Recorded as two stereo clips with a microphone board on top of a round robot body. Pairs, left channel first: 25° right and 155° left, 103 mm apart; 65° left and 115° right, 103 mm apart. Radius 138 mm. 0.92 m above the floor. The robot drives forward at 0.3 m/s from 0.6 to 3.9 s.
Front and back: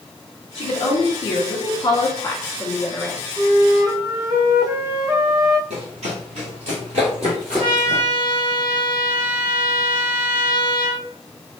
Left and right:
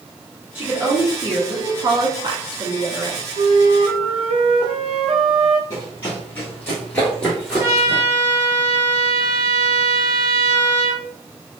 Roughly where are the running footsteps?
Behind left.